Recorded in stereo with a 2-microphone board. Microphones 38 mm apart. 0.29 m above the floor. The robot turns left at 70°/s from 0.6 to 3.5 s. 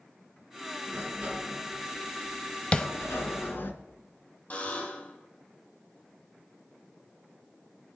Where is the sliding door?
105° right, 1.7 m; by 3.7 s 70° left, 1.7 m.